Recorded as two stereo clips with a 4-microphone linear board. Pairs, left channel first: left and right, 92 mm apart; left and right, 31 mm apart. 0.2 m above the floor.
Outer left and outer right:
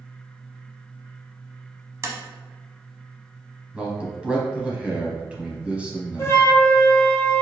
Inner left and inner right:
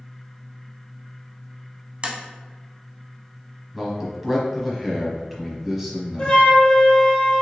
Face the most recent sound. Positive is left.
turn(degrees=30)  # may be behind; listen again after turning